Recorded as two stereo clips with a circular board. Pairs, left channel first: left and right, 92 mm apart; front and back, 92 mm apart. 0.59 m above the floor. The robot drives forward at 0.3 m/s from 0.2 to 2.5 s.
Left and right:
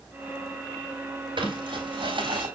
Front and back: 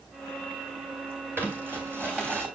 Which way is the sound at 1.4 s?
110° right.